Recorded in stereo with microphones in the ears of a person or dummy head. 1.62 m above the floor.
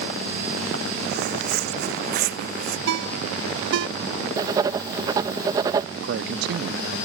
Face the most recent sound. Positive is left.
turn(degrees=-55)  # may be behind; listen again after turning